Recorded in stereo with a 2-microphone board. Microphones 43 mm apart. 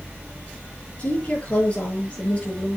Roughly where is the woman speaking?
Left.